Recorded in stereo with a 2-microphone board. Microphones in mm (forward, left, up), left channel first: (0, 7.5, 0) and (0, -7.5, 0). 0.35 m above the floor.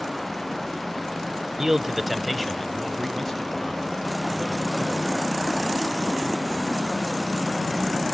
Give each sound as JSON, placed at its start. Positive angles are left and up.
{"t": 1.6, "sound": "a man speaking", "side_deg": -35, "distance_m": 1.1}